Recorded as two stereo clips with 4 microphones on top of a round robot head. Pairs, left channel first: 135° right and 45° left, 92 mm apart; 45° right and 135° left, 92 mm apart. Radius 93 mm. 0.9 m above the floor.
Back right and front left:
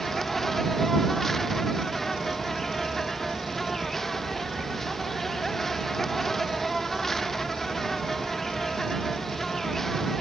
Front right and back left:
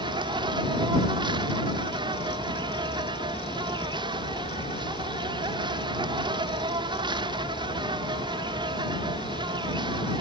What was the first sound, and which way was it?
An insect, 140° left.